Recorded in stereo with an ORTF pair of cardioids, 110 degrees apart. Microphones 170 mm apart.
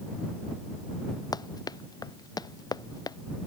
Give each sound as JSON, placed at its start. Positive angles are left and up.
{"t": 1.3, "sound": "running footsteps", "azimuth_deg": 25}